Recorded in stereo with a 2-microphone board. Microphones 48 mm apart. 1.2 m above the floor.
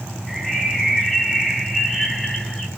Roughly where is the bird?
Centre.